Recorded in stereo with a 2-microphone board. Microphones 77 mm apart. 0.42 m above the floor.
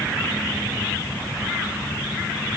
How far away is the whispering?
I don't hear whispering.